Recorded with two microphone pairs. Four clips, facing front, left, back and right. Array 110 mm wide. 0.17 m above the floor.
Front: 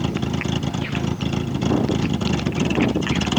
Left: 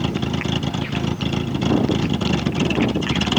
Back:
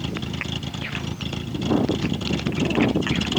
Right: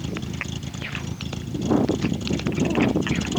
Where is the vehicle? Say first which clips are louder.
Left 8 dB, front 6 dB; 60° left.